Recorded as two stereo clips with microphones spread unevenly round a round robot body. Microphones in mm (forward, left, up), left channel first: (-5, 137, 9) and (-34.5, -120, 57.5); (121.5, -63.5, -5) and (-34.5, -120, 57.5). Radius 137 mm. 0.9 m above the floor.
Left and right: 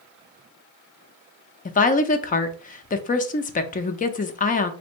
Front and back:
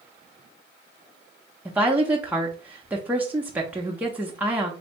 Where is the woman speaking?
100° left, 0.6 m.